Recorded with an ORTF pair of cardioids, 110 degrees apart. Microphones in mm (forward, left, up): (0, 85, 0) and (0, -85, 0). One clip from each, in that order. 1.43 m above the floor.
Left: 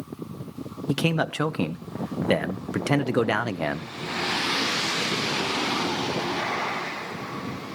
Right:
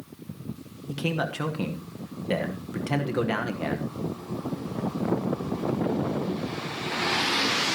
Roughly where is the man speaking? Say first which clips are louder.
Left 4 dB; ahead left.